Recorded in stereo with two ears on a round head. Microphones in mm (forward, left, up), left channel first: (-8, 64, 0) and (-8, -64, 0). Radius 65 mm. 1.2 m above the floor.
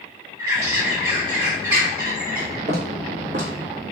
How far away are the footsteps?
About 1.9 m.